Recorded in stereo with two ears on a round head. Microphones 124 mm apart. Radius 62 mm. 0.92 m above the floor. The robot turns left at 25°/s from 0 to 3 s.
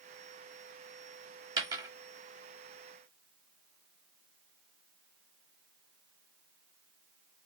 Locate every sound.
1.6 s a dropped coin: 30° right (ahead or behind), 1.0 m; by 1.9 s 25° right (ahead or behind), 1.0 m